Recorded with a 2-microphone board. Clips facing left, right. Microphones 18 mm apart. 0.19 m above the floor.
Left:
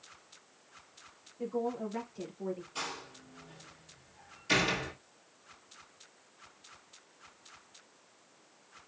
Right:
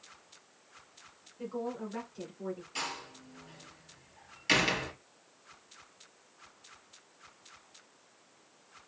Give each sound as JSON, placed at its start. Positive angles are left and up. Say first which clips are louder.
{"t": 1.4, "sound": "a woman speaking", "louder": "left 3 dB", "side_deg": -45, "distance_m": 2.0}
{"t": 2.8, "sound": "a door slam", "louder": "right 2 dB", "side_deg": -50, "distance_m": 2.5}